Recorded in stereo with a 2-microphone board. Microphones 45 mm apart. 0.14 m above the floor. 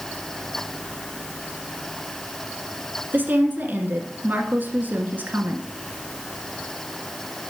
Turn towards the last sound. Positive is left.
turn(degrees=-45)  # may be behind; listen again after turning